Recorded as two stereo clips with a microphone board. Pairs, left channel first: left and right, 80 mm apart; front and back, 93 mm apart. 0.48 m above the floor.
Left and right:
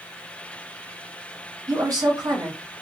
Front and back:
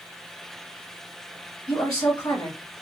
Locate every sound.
1.7 s a woman speaking: 50° right, 3.5 m